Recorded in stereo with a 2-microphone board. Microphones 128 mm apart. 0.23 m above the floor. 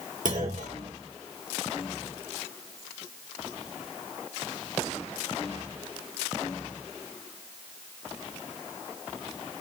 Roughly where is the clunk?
Right.